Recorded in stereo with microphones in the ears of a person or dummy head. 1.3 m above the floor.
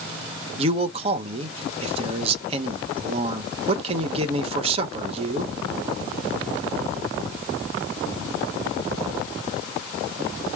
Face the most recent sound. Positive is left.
turn(degrees=-40)  # may be behind; listen again after turning